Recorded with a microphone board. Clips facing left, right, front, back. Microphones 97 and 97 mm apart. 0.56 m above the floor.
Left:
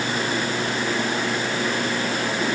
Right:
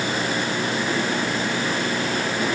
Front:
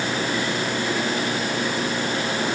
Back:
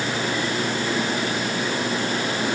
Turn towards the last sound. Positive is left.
No sound to turn to.